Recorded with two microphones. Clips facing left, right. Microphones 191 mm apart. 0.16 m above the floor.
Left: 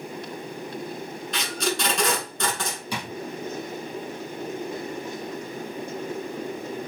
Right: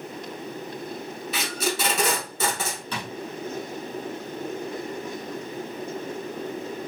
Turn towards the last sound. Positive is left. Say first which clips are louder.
# left 1 dB
turn(degrees=10)  # may be behind; listen again after turning